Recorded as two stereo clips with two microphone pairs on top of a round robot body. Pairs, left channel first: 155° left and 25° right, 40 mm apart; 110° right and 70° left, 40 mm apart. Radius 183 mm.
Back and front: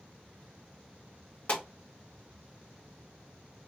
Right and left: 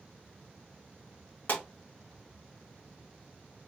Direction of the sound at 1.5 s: 155° right.